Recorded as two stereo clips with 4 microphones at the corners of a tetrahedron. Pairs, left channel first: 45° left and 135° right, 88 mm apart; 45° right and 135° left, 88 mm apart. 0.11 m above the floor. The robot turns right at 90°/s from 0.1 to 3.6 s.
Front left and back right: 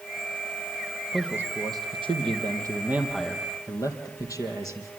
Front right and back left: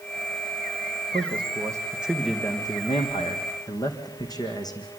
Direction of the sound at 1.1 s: 135° left.